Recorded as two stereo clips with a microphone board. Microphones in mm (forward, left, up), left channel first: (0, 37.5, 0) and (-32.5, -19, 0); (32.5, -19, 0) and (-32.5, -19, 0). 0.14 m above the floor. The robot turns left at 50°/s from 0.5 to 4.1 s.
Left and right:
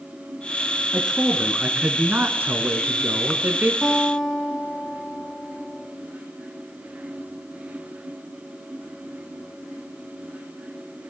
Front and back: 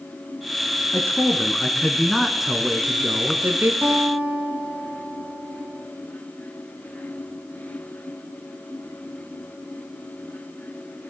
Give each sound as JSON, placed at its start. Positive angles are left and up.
{"t": 0.9, "sound": "a man speaking", "azimuth_deg": -25, "distance_m": 1.3}
{"t": 3.8, "sound": "a guitar", "azimuth_deg": 150, "distance_m": 1.6}